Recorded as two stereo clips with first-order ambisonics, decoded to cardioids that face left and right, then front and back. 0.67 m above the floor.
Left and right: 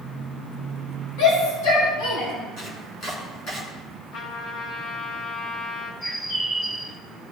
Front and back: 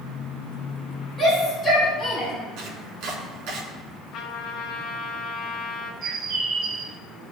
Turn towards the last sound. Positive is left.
turn(degrees=150)